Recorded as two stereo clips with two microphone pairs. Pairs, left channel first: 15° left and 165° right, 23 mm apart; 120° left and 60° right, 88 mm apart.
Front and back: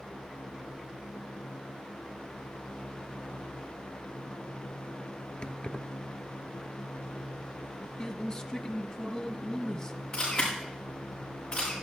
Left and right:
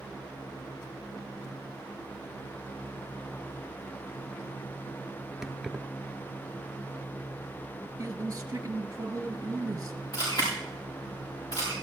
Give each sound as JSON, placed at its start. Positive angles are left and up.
{"t": 5.4, "sound": "keys jangling", "azimuth_deg": 20, "distance_m": 1.0}
{"t": 8.0, "sound": "a man speaking", "azimuth_deg": -40, "distance_m": 1.3}
{"t": 10.1, "sound": "a camera shutter", "azimuth_deg": 80, "distance_m": 6.5}